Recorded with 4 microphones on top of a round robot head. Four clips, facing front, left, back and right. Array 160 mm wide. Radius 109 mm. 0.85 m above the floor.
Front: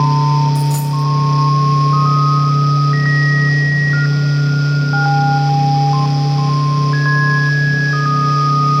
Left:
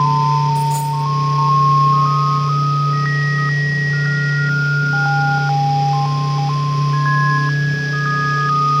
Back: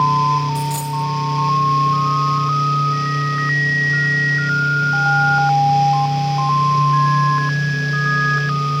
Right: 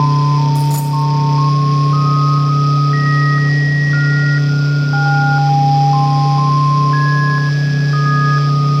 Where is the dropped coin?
65° right, 3 m.